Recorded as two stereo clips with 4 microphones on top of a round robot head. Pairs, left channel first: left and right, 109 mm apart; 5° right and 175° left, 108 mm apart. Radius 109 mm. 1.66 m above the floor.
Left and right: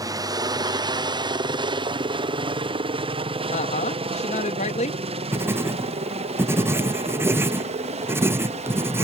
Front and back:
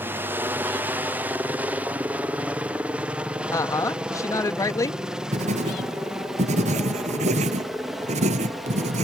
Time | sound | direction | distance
0.0 | a helicopter | 120° right | ?
3.5 | a woman speaking | 60° left | ?
5.3 | writing | 160° right | ?